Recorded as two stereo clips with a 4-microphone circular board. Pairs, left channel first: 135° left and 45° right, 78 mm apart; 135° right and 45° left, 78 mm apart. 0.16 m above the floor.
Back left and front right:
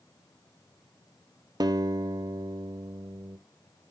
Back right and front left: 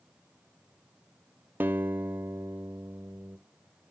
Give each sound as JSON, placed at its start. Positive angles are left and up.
{"t": 1.6, "sound": "a guitar", "azimuth_deg": -15, "distance_m": 0.8}